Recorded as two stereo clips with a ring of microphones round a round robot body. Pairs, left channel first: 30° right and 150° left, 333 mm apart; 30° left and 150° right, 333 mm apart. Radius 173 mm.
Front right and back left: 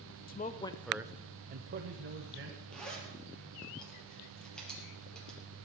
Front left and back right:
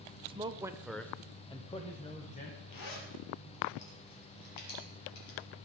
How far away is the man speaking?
About 1.1 m.